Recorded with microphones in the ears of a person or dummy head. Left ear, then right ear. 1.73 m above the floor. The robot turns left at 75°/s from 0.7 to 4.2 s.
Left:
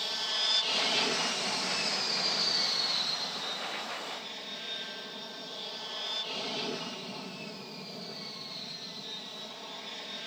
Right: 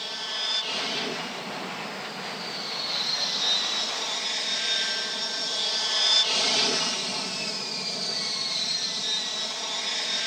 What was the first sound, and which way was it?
An aircraft, 165° left.